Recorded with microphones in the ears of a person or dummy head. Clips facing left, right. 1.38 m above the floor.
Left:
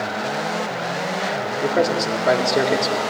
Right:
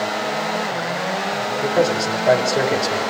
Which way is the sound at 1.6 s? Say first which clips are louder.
Right 1 dB; 15° left (ahead or behind).